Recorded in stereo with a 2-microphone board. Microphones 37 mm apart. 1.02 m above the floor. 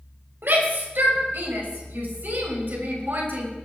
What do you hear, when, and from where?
0.4 s a shout: 70° right (ahead or behind), 4.5 m